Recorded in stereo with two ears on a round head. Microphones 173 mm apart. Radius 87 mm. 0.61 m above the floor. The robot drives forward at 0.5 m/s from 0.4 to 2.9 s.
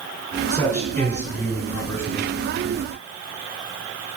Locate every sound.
0.5 s a man speaking: 10° left (ahead or behind), 2.5 m; by 2.4 s 5° left (ahead or behind), 3.5 m